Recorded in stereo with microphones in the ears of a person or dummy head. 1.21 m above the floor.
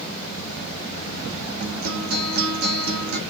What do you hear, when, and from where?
1.6 s a guitar: 50° right (ahead or behind), 3 m